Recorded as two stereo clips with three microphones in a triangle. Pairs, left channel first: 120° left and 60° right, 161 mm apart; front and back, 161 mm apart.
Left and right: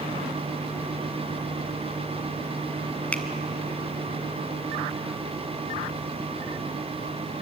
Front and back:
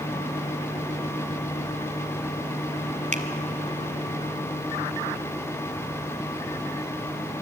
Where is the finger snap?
160° right, 1.5 m.